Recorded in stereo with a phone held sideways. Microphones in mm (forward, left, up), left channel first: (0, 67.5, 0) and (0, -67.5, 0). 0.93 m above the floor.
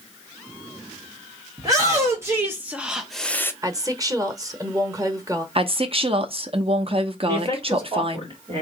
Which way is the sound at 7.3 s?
40° right (ahead or behind).